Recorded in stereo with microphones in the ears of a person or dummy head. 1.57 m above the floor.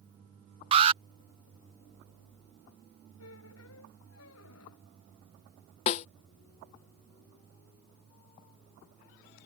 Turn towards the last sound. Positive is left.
turn(degrees=35)  # may be behind; listen again after turning